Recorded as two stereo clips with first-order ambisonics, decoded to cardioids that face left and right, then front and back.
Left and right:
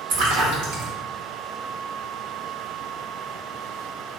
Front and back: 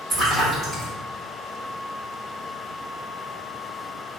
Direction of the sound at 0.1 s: 90° right.